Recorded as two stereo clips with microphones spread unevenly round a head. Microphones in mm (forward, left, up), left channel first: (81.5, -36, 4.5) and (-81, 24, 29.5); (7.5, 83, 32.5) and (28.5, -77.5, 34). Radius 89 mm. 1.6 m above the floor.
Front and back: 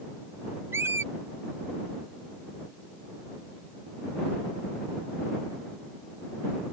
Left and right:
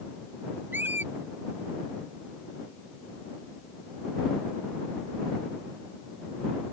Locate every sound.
0.7 s a squeak: 150° right